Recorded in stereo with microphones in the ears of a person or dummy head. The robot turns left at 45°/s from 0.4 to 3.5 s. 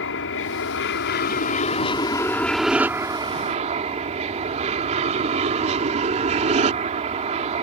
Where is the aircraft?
100° left; by 7.6 s 40° right.